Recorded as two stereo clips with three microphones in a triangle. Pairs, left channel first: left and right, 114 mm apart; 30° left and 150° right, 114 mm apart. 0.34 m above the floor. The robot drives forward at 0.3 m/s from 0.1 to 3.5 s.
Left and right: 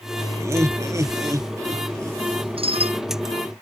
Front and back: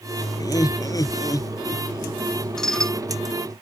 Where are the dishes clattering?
55° right.